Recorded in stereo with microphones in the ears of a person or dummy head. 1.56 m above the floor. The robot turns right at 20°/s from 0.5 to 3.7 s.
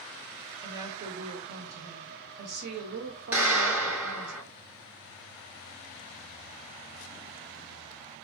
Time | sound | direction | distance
0.6 | a woman speaking | 160° right | 0.8 m
3.3 | a clap | 10° right (ahead or behind) | 1.8 m